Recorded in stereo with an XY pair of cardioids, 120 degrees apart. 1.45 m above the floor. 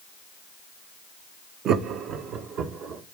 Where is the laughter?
60° right, 0.7 m; by 3.0 s 70° right, 1.6 m.